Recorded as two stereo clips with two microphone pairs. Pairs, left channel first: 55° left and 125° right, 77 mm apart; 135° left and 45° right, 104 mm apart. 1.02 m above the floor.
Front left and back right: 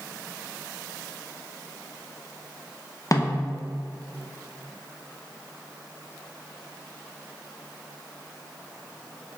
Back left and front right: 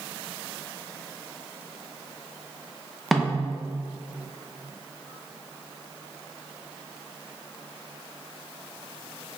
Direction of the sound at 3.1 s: 45° left.